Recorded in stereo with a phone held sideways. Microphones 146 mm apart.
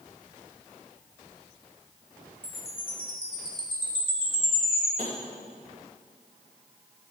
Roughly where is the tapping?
Right.